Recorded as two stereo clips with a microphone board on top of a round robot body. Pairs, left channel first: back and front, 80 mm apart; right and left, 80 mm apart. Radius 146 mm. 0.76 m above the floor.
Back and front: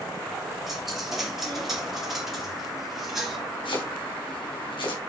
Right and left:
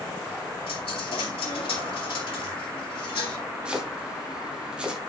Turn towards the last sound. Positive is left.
turn(degrees=170)